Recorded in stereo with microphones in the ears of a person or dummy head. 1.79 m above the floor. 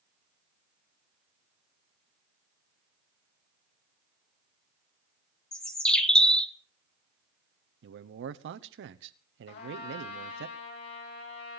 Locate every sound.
5.5 s a bird: 5° left (ahead or behind), 0.8 m
7.8 s a man speaking: 70° right (ahead or behind), 0.8 m
9.5 s a trumpet: 65° left (ahead or behind), 7.5 m